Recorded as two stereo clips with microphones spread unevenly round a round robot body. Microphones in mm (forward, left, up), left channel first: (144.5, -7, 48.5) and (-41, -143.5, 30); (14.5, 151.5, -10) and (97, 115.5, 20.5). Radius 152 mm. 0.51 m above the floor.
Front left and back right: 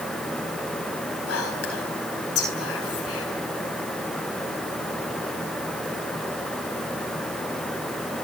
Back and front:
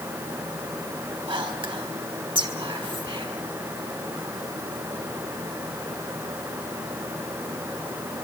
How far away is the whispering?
About 4.5 m.